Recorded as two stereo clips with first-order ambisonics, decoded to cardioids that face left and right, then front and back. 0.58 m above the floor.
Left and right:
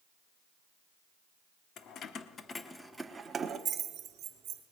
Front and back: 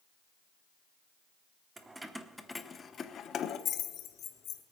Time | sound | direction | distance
1.8 | keys jangling | 110° left | 0.8 m